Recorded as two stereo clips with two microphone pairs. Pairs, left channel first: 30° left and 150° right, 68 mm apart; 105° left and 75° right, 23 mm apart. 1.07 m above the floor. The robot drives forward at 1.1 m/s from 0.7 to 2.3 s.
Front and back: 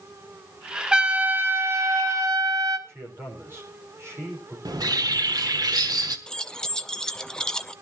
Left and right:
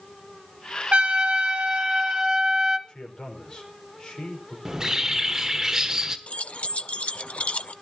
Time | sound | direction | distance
0.9 | a trumpet | 75° right | 1.6 m
2.9 | a man speaking | 155° left | 4.5 m
4.7 | a bird | 140° right | 1.4 m
6.3 | keys jangling | 105° left | 0.6 m